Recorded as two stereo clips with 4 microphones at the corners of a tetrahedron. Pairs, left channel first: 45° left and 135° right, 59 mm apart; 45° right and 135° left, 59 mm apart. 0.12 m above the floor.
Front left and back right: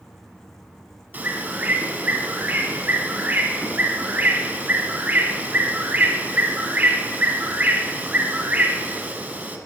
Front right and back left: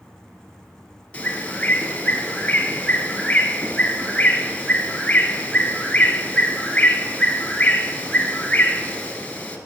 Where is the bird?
100° right, 1.4 m.